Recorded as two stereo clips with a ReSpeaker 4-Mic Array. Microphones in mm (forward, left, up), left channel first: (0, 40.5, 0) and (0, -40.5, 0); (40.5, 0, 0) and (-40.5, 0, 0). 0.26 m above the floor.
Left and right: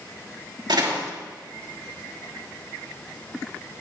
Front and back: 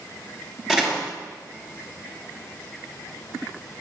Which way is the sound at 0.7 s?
100° right.